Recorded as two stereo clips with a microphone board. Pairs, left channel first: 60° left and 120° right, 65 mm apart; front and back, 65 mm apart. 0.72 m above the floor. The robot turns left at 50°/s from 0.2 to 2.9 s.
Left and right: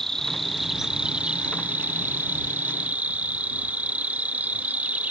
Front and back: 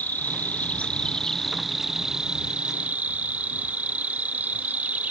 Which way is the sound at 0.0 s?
15° right.